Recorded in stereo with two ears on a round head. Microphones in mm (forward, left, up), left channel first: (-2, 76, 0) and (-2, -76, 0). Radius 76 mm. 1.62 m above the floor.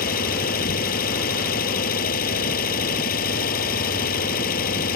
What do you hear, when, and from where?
0.0 s an engine running: 55° left (ahead or behind)